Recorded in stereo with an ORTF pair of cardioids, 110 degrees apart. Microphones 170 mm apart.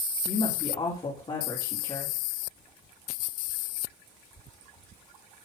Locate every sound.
0.2 s a woman speaking: 25° left, 3.5 m